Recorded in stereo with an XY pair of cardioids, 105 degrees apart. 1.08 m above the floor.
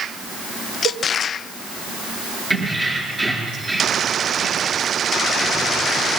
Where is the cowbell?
55° right, 1.3 m.